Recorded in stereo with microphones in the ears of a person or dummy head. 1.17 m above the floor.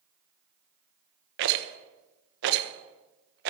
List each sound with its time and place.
1.4 s a rattle: 60° right (ahead or behind), 1.2 m